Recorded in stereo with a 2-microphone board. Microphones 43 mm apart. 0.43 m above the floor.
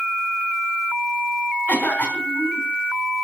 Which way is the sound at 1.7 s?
40° left (ahead or behind).